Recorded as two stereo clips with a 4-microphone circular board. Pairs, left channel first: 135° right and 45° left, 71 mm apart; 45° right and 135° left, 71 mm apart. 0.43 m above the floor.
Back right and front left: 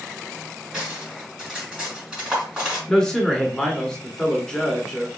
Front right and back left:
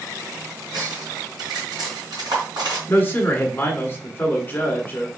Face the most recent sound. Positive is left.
turn(degrees=-65)